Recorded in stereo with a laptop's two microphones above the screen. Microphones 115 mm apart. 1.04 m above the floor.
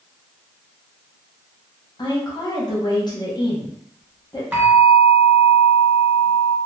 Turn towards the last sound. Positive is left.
turn(degrees=-10)  # may be behind; listen again after turning